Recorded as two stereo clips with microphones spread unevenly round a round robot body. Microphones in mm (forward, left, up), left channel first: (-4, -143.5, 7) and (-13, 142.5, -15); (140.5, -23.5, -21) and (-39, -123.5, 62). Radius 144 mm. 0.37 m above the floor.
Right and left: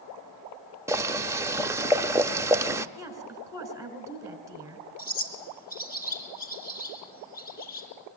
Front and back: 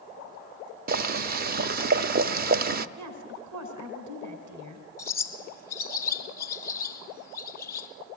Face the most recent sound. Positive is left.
turn(degrees=-10)